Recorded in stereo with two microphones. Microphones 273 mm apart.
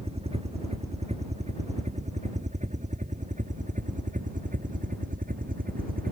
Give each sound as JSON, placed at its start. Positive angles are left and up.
{"t": 0.0, "sound": "a helicopter", "side_deg": -20}